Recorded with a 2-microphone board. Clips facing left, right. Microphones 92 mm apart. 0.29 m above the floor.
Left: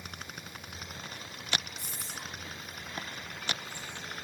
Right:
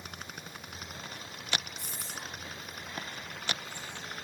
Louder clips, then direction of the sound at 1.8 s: Even; 40° right (ahead or behind).